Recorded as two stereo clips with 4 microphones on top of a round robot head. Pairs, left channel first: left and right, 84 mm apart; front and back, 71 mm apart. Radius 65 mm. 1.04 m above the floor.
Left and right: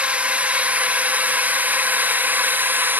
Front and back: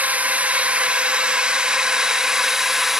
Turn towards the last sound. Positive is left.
turn(degrees=-100)